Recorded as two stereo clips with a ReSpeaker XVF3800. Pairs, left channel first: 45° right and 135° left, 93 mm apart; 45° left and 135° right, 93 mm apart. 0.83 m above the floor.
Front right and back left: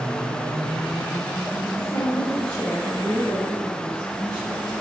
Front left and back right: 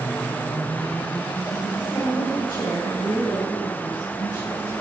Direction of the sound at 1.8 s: 10° left.